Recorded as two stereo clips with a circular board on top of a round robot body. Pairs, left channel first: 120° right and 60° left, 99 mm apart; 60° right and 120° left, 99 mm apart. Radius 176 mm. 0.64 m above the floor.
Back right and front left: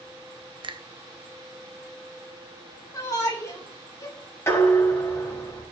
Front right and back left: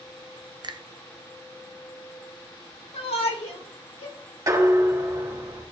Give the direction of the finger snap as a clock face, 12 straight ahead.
9 o'clock.